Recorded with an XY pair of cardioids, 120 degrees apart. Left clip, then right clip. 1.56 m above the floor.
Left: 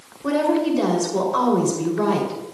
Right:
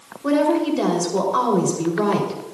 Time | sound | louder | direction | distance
0.2 | a woman speaking | right 1 dB | 5° right | 4.5 m